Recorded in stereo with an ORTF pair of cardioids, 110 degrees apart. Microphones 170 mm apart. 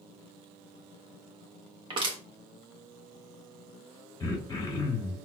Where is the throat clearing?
20° left, 1.1 m.